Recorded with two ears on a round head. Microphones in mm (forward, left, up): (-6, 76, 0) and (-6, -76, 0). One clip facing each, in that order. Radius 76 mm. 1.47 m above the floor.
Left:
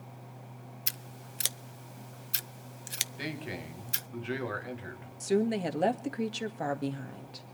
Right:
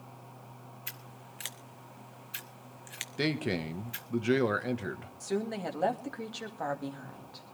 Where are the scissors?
50° left (ahead or behind), 0.7 m.